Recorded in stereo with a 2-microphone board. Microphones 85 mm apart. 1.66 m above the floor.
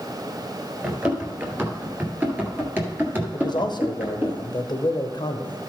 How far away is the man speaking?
About 0.9 m.